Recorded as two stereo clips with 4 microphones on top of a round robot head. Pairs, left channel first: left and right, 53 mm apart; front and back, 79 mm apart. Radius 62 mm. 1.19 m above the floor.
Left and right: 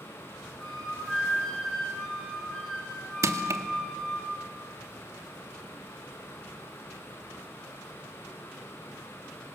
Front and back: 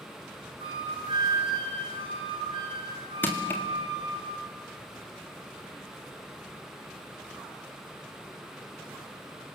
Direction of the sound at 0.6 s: 175° left.